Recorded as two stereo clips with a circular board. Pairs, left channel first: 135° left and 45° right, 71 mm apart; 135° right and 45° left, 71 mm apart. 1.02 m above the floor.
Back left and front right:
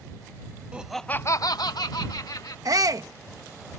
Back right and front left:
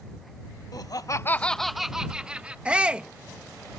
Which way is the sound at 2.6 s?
30° right.